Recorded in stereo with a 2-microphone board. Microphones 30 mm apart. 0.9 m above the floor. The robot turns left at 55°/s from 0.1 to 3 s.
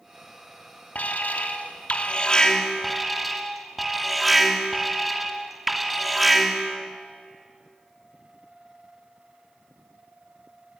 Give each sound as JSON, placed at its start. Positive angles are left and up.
{"t": 0.9, "sound": "an alarm", "azimuth_deg": 110, "distance_m": 2.5}